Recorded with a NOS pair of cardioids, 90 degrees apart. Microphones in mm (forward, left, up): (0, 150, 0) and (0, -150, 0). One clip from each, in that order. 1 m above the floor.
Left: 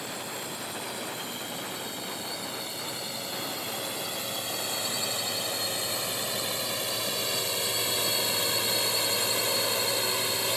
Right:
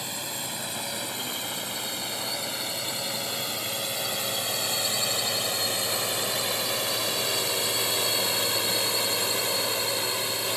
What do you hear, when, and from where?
0.0 s a drone: 45° right; by 10.6 s 5° left